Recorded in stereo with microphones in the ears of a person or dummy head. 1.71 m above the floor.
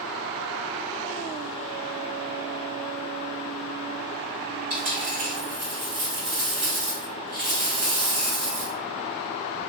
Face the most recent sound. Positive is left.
turn(degrees=-50)  # may be behind; listen again after turning